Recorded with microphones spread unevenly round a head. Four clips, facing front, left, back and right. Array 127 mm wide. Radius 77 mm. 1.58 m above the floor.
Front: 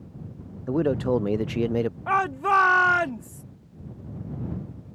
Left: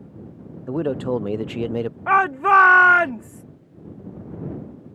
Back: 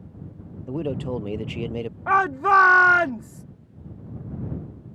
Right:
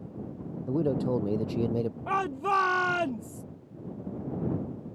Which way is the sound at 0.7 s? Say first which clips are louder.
Left 4 dB, front 5 dB; 60° left.